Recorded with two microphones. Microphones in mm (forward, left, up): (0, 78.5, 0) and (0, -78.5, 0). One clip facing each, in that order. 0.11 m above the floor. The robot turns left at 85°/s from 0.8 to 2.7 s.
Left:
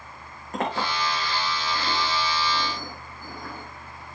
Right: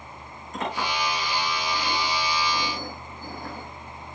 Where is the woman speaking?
I don't hear a woman speaking.